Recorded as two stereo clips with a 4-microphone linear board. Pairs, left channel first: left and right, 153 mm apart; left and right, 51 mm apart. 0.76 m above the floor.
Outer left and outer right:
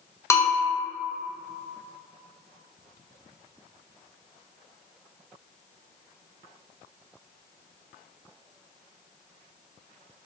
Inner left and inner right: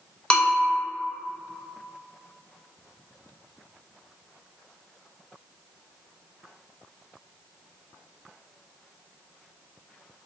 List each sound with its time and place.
0.3 s a bell: 20° left (ahead or behind), 0.5 m